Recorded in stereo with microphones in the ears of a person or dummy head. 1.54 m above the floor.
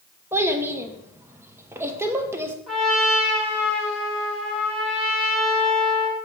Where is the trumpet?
5° left (ahead or behind), 2 m.